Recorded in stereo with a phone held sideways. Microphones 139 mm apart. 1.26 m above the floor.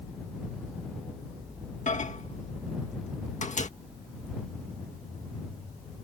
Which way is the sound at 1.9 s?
55° left (ahead or behind).